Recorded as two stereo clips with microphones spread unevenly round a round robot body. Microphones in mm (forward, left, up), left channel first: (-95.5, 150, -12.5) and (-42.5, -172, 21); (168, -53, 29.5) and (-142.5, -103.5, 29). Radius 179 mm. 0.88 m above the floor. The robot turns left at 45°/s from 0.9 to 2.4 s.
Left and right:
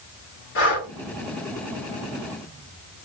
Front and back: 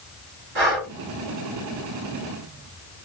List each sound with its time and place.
0.6 s breathing: 155° left, 1.9 m